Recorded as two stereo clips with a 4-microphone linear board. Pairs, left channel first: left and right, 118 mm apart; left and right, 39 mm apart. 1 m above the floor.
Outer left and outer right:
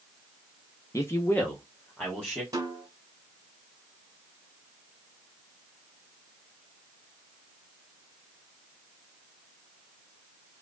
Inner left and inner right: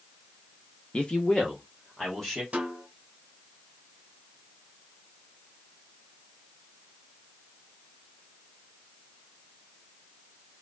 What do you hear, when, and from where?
0.9 s a man speaking: 25° left (ahead or behind), 0.8 m; by 2.4 s 5° left (ahead or behind), 2.0 m
2.5 s a snare drum: 30° right (ahead or behind), 2.5 m